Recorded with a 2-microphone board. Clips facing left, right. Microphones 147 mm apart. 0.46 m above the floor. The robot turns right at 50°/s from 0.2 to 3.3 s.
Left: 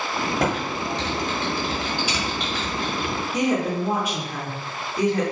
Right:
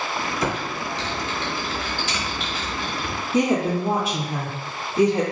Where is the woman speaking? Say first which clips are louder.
Right 3 dB; 30° right (ahead or behind), 0.8 m.